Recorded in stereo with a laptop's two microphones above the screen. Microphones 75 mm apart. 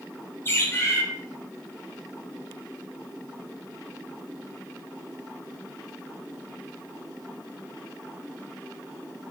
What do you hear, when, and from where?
0.5 s a bird: 30° left (ahead or behind), 1.5 m